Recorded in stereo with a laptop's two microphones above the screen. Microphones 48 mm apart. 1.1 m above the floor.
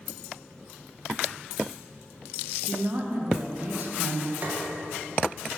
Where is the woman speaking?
40° right (ahead or behind), 0.7 m.